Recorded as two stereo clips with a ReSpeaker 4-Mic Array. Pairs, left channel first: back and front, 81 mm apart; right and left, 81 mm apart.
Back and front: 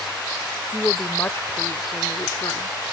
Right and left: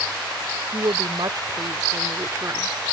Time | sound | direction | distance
0.7 | a woman speaking | 110° left | ?